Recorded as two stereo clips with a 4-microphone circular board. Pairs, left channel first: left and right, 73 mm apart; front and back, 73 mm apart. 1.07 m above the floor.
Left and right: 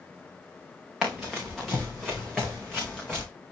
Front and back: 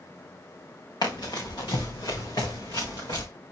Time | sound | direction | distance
1.0 | running footsteps | 5° right | 4 m